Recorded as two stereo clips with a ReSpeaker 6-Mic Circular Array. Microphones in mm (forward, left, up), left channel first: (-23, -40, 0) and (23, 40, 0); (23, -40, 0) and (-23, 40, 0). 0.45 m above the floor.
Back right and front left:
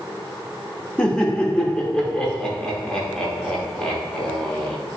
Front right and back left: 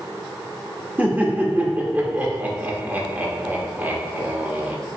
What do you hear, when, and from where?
1.0 s laughter: 170° left, 0.9 m